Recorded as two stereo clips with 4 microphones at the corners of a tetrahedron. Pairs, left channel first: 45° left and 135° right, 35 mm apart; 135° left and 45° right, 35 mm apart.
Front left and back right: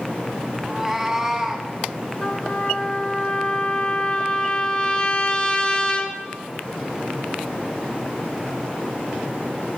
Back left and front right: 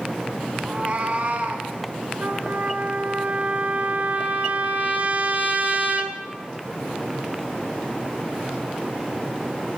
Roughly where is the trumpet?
Ahead.